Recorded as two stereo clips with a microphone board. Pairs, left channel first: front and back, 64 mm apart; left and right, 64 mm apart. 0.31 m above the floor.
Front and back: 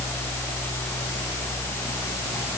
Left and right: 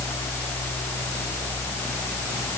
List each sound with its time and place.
Only background noise.